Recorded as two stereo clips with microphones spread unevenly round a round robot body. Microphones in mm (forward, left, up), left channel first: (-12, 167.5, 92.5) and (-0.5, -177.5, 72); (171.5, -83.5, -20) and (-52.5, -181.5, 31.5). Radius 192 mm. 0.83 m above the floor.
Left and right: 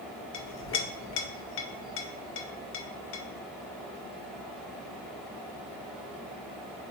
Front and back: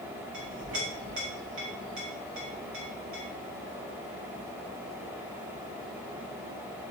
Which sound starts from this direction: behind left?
A clink, at 0.3 s.